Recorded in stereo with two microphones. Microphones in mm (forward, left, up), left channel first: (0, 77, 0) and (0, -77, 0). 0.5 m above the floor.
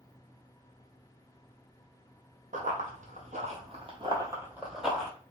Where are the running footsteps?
65° right (ahead or behind), 1.1 m; by 5.1 s 5° left (ahead or behind), 1.0 m.